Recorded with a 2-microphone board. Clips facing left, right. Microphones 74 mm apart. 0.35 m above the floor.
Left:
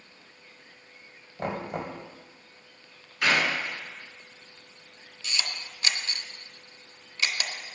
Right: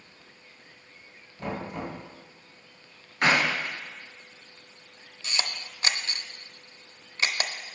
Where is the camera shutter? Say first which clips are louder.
Right 2 dB; 35° right (ahead or behind), 0.6 m.